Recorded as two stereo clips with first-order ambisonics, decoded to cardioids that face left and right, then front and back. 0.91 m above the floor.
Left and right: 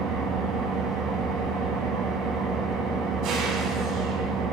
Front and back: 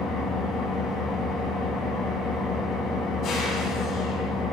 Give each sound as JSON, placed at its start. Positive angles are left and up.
{"t": 0.0, "sound": "an engine running", "azimuth_deg": -40, "distance_m": 4.0}